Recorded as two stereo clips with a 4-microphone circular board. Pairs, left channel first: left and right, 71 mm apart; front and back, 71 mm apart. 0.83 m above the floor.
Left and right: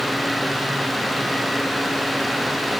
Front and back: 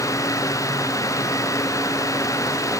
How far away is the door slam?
No door slam in this recording.